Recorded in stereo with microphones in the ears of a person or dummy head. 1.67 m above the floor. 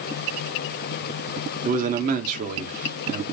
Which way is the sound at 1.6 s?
45° right (ahead or behind).